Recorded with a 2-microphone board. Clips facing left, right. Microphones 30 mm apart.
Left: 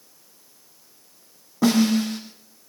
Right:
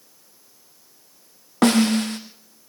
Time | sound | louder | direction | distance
1.6 | a snare drum | right 1 dB | 60° right (ahead or behind) | 3.5 m